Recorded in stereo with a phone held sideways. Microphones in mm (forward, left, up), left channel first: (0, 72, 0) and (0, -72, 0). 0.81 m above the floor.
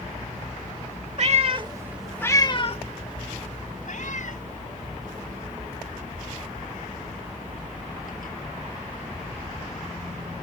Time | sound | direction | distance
1.2 | a cat meowing | 55° right (ahead or behind) | ?